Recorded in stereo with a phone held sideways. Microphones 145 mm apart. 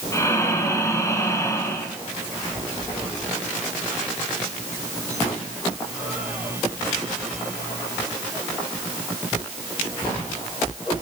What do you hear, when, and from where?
0.1 s breathing: 20° left (ahead or behind), 1.8 m